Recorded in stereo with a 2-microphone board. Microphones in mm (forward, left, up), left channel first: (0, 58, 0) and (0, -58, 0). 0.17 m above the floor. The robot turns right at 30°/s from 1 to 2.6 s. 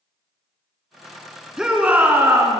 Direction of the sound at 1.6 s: 170° right.